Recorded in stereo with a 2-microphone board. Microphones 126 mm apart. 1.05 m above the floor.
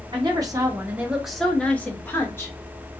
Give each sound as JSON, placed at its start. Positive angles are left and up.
{"t": 0.1, "sound": "a woman speaking", "side_deg": -35, "distance_m": 0.8}